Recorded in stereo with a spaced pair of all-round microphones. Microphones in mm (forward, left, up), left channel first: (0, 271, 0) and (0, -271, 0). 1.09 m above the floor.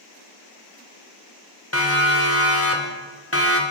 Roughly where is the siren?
Left.